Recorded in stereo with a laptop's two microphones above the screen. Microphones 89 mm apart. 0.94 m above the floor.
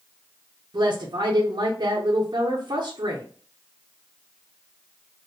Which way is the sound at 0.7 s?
55° right (ahead or behind).